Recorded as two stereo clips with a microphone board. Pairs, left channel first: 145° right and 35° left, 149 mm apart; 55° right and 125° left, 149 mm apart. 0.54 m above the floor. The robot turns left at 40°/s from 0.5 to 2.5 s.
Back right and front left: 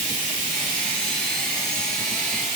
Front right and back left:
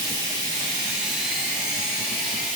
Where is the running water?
60° left, 1.0 m; by 2.6 s 20° right, 1.0 m.